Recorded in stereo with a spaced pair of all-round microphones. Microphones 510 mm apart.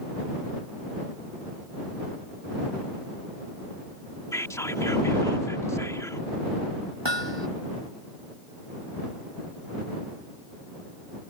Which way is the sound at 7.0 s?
55° right (ahead or behind).